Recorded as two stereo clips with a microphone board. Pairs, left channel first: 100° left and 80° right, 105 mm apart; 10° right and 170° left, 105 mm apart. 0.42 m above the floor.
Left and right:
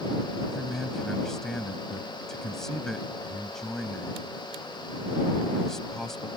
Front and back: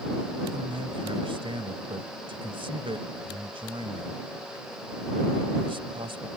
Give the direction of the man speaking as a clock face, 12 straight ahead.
6 o'clock.